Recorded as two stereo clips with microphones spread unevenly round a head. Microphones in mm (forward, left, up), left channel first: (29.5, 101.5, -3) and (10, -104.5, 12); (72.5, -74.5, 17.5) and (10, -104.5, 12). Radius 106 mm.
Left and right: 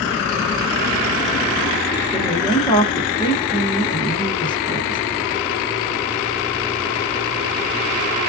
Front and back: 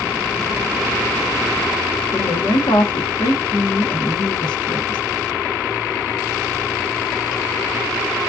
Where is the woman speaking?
15° left, 1.3 m.